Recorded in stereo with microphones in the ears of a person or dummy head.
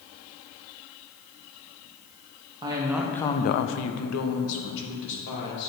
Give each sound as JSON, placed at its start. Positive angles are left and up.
{"t": 2.6, "sound": "a woman speaking", "side_deg": -25, "distance_m": 0.9}